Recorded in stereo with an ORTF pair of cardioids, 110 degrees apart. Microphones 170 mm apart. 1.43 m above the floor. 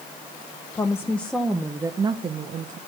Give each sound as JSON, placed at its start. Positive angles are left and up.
{"t": 0.8, "sound": "a woman speaking", "azimuth_deg": 20, "distance_m": 0.9}